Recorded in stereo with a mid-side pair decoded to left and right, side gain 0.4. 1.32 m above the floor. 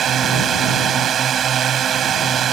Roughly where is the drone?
Ahead right.